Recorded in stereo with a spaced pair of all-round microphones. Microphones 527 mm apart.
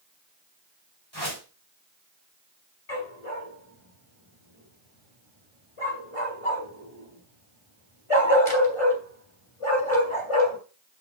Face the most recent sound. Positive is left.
turn(degrees=80)